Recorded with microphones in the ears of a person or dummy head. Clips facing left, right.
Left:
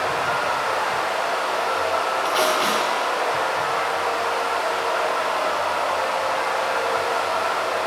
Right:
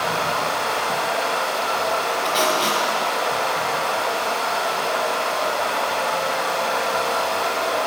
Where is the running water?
45° right (ahead or behind), 1.2 m.